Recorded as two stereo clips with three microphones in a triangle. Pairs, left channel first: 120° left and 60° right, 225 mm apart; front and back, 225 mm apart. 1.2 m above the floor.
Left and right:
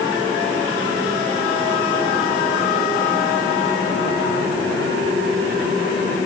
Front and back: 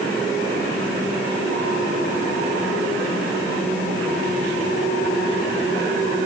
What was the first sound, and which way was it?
Only background noise.